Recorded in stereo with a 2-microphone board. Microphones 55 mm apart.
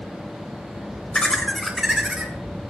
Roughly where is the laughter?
Centre.